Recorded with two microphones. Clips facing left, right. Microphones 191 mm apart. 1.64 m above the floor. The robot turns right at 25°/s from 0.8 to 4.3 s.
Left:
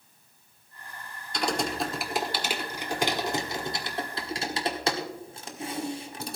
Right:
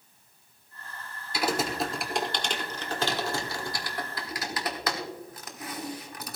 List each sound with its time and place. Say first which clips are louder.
1.3 s typing on a keyboard: even; 5° right (ahead or behind), 1.4 m; by 6.4 s 25° left (ahead or behind), 1.4 m